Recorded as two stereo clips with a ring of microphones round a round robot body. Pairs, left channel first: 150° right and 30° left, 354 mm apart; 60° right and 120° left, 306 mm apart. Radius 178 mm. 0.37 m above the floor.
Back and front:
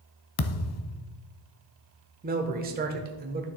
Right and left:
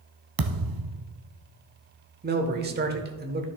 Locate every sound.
0.4 s a thud: 160° left, 0.5 m
2.2 s a man speaking: 80° left, 1.0 m